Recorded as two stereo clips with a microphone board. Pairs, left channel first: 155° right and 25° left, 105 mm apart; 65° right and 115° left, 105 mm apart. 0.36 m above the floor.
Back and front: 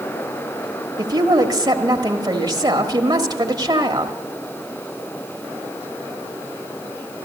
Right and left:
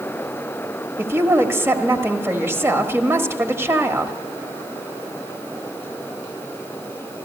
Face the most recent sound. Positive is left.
turn(degrees=55)